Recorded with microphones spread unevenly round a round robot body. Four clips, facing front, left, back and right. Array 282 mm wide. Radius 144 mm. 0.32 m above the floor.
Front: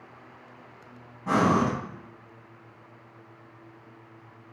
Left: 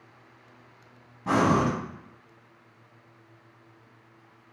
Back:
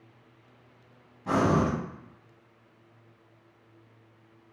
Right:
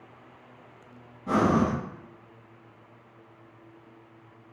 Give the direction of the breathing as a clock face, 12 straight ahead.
9 o'clock.